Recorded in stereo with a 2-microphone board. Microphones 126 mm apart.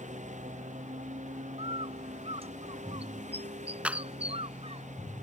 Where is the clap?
10° right (ahead or behind).